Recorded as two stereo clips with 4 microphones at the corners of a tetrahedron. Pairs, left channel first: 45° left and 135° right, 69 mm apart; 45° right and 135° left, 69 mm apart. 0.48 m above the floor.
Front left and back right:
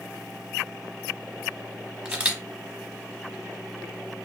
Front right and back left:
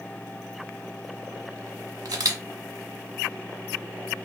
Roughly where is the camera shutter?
Behind left.